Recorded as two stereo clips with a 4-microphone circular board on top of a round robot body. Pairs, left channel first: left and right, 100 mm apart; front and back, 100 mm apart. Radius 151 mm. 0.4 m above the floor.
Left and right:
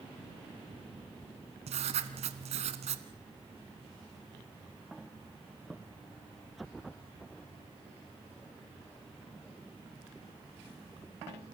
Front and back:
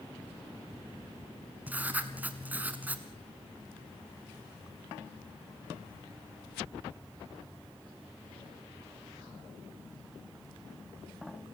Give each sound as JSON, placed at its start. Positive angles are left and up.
{"t": 1.7, "sound": "writing", "azimuth_deg": -105, "distance_m": 0.9}